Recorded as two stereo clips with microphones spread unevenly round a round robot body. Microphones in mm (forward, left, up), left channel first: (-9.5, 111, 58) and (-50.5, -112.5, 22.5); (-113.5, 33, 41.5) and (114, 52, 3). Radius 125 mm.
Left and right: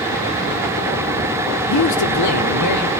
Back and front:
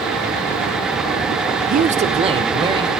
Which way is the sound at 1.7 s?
55° left.